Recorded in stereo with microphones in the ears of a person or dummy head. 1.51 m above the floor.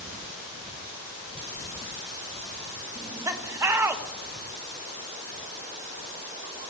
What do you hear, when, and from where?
3.0 s laughter: 15° right (ahead or behind), 1.2 m